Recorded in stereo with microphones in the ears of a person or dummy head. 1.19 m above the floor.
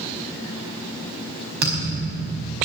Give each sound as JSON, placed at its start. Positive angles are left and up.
{"t": 1.6, "sound": "a thud", "side_deg": -60, "distance_m": 5.0}